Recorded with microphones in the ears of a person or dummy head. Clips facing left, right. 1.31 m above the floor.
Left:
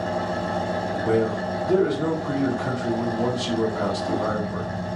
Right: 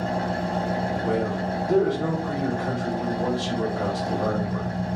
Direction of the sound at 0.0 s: 10° left (ahead or behind).